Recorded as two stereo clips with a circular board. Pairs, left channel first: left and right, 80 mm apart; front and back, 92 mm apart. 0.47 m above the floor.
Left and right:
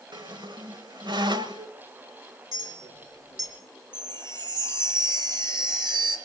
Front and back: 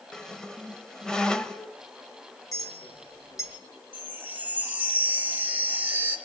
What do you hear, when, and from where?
0.1 s a squeak: 80° right, 1.2 m
2.5 s a clink: 55° right, 4.5 m
3.9 s a chime: 110° right, 3 m